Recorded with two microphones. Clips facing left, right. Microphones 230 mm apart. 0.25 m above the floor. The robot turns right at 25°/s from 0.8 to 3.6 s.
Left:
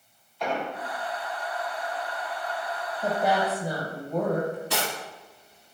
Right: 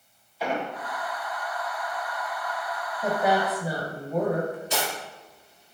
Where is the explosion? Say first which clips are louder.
Right 1 dB; 5° right (ahead or behind), 0.8 m.